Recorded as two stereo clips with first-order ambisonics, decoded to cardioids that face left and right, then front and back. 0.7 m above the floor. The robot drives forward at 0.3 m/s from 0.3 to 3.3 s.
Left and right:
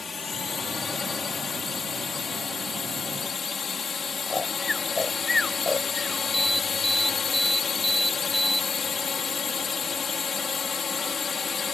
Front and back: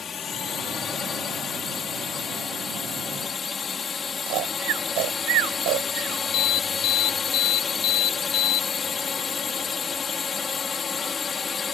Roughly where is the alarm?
Ahead.